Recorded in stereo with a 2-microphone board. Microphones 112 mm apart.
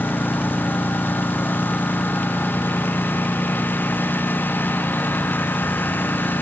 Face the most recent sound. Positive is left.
turn(degrees=15)  # may be behind; listen again after turning